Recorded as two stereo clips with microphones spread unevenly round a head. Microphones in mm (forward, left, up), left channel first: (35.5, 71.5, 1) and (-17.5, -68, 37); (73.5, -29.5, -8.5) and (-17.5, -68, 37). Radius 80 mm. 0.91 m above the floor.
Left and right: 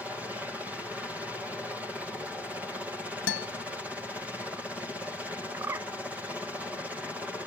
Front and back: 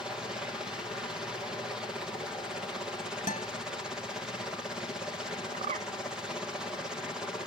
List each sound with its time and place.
0.0 s a helicopter: 10° right
3.3 s a guitar: 80° left
5.5 s a bird: straight behind